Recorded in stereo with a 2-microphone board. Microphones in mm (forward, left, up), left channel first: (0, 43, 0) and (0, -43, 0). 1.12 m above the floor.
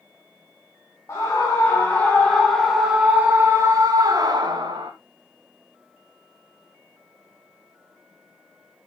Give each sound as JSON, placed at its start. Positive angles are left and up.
{"t": 1.1, "sound": "a scream", "side_deg": 35, "distance_m": 1.6}